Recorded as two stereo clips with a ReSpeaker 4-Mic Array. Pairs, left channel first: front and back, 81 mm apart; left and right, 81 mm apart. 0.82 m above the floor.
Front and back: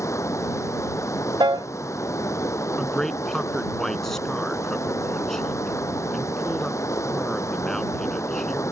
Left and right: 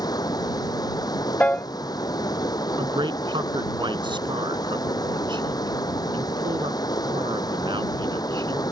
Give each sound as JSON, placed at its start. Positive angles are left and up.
{"t": 0.0, "sound": "running water", "azimuth_deg": 55}
{"t": 1.4, "sound": "a piano", "azimuth_deg": 160}
{"t": 2.8, "sound": "a man speaking", "azimuth_deg": -85}